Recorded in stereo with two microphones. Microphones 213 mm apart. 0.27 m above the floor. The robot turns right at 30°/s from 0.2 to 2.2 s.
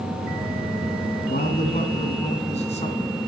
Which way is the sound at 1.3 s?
50° left (ahead or behind).